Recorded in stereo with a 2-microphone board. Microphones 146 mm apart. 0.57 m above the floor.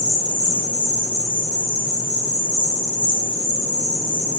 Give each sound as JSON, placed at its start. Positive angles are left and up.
{"t": 0.0, "sound": "an insect", "side_deg": -30, "distance_m": 1.5}